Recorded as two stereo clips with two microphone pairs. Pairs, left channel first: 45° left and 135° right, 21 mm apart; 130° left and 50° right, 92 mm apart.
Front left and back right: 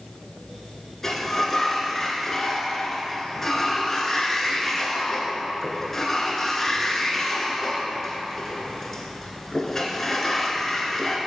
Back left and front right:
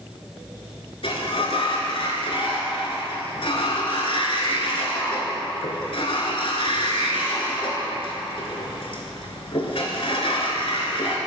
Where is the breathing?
No breathing in this recording.